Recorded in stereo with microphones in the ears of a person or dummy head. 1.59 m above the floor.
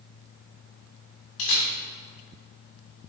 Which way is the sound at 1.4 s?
75° left (ahead or behind).